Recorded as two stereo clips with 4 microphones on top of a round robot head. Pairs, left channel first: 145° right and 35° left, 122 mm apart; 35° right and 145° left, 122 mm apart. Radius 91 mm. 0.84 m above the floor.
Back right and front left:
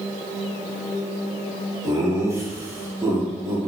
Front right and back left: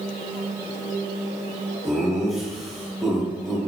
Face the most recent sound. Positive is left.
turn(degrees=50)